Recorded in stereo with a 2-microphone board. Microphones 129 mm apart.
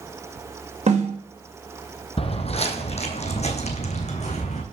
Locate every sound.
0.9 s a snare drum: 60° right (ahead or behind), 2.5 m
2.2 s footsteps: 50° left (ahead or behind), 1.0 m; by 4.6 s 60° left (ahead or behind), 2 m